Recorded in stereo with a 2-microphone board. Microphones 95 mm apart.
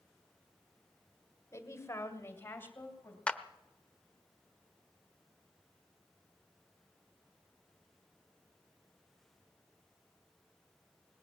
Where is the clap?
10° left (ahead or behind), 0.8 m.